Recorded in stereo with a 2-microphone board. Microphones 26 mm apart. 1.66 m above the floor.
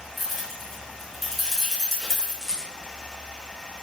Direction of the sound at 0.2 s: Centre (ahead or behind).